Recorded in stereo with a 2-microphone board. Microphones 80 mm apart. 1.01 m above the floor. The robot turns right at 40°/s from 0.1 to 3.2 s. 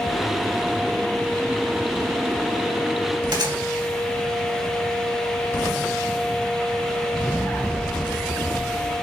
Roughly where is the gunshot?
Right.